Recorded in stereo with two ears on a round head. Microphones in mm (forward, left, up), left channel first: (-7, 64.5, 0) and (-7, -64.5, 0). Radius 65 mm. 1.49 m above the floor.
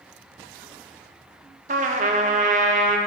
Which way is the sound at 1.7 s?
55° right (ahead or behind).